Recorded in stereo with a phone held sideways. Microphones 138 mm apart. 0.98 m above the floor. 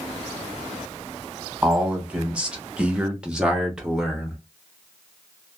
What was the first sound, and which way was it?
A man speaking, 5° right (ahead or behind).